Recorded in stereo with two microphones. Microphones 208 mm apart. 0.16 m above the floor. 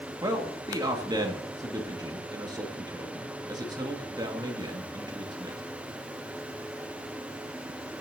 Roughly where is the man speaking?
Centre.